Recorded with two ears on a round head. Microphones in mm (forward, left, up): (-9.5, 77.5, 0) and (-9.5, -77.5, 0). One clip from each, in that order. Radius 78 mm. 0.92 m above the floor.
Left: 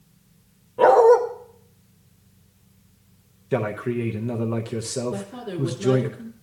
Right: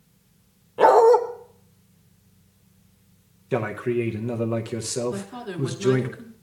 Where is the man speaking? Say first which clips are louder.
Even; 15° right (ahead or behind), 0.7 m.